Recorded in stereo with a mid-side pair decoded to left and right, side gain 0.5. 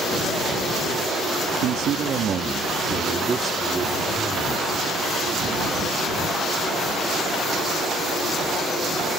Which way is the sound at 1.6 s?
70° right.